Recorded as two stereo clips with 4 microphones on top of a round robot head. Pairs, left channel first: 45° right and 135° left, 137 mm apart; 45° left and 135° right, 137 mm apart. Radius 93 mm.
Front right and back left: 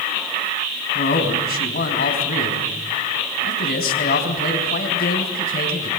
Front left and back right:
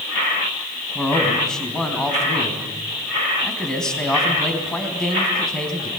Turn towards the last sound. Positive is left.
turn(degrees=-40)